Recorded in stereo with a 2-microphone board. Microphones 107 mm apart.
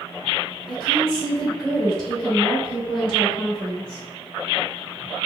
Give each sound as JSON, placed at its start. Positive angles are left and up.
{"t": 0.7, "sound": "a woman speaking", "side_deg": 10, "distance_m": 1.3}